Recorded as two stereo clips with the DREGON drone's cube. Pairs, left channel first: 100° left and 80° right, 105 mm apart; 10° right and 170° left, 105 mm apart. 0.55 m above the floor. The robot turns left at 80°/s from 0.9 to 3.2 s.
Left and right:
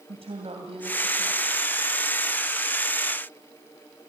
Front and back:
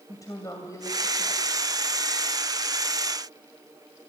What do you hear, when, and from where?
0.1 s a woman speaking: 70° right, 2.5 m; by 1.5 s 110° right, 2.5 m